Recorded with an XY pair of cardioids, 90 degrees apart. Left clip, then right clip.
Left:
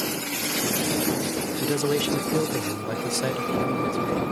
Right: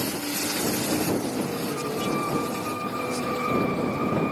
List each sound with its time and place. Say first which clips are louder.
1.6 s a man speaking: left 4 dB; 65° left; by 4.2 s 75° left